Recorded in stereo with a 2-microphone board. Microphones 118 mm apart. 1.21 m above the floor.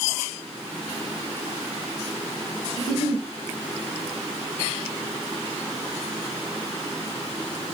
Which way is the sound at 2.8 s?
55° left (ahead or behind).